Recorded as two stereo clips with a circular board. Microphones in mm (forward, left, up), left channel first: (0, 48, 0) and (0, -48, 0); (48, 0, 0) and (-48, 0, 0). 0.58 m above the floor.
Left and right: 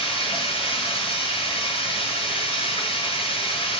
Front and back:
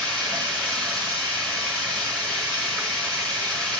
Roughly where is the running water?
Left.